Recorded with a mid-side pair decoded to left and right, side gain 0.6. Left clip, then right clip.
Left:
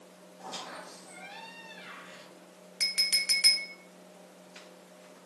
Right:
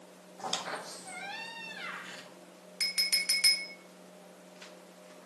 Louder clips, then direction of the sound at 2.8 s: Left 2 dB; 5° left.